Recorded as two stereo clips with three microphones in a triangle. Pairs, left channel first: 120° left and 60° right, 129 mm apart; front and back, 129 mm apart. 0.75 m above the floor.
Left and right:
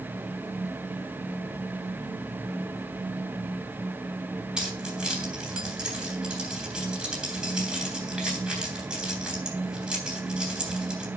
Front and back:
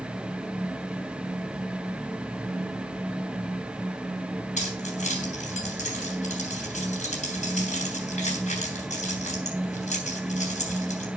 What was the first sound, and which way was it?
Keys jangling, 25° left.